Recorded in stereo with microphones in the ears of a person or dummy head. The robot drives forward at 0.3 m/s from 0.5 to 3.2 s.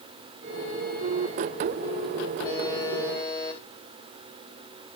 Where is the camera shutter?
No camera shutter in this recording.